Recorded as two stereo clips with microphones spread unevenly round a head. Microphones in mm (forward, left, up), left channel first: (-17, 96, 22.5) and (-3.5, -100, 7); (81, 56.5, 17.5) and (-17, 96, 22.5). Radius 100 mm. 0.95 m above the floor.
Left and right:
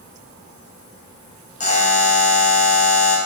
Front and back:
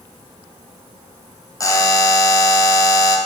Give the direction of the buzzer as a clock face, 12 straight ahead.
11 o'clock.